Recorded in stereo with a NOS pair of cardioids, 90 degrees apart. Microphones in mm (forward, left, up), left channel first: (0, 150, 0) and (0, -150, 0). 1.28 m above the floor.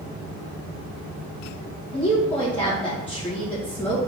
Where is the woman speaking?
5° left, 1.4 m.